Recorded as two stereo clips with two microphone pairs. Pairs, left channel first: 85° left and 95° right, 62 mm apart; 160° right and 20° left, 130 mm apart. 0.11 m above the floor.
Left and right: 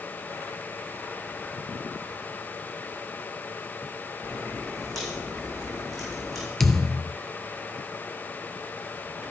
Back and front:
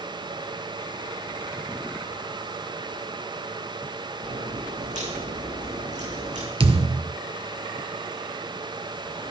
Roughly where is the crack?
Ahead.